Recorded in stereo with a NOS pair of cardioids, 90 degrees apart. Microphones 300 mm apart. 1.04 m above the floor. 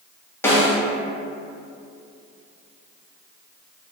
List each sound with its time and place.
0.4 s a snare drum: 5° left, 1.0 m